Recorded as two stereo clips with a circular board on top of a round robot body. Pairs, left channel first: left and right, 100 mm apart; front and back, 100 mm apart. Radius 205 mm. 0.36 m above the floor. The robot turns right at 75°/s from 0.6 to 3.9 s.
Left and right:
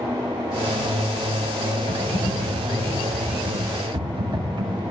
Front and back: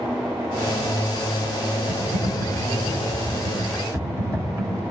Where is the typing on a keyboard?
85° left, 2.5 m; by 4.8 s 120° right, 2.5 m.